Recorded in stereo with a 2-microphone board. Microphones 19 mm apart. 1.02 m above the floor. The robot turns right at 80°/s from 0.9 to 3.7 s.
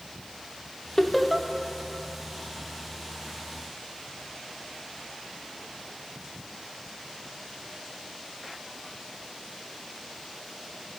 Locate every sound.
1.0 s laughter: 20° left (ahead or behind), 0.6 m; by 1.5 s 20° right (ahead or behind), 0.6 m